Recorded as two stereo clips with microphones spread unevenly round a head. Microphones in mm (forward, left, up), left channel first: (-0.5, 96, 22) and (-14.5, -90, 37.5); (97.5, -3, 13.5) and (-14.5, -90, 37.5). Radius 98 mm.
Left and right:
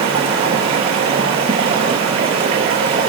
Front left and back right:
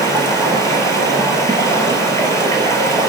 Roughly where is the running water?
Ahead right.